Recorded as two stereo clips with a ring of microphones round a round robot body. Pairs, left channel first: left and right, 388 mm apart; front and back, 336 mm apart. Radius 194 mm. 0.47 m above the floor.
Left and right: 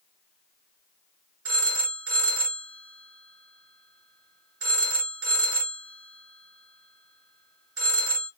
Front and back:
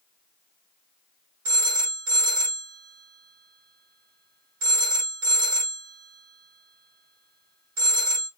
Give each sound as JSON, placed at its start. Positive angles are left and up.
{"t": 1.4, "sound": "a phone ringing", "azimuth_deg": -140, "distance_m": 1.5}